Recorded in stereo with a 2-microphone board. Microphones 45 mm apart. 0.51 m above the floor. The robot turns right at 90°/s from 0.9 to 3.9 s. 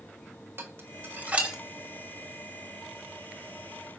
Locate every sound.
0.6 s dishes clattering: 60° right (ahead or behind), 1.1 m; by 1.6 s 15° right (ahead or behind), 1.1 m